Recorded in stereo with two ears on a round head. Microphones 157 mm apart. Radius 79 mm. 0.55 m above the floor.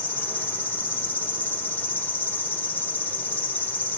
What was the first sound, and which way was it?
An insect, 10° left (ahead or behind).